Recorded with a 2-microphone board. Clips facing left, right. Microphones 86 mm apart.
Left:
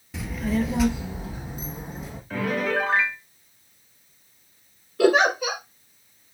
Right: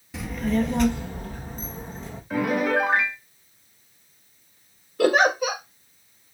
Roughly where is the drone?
I don't hear a drone.